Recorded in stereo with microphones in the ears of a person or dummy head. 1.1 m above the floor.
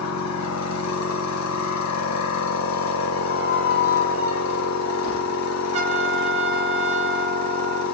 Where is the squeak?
70° left (ahead or behind), 3 m.